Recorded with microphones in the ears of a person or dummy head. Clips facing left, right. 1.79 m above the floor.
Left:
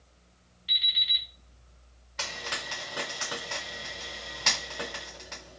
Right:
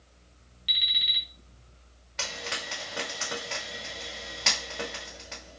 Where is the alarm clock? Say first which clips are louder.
Right 2 dB; 25° right (ahead or behind), 1.1 m.